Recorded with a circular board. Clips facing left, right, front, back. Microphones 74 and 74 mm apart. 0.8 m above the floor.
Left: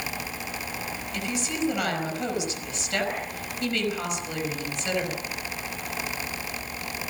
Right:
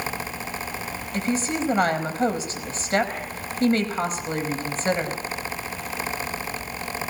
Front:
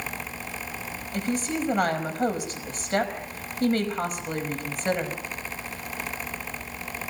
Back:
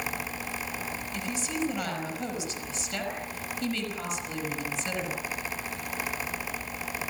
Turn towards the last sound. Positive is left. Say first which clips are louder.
# right 6 dB, front 6 dB
turn(degrees=-40)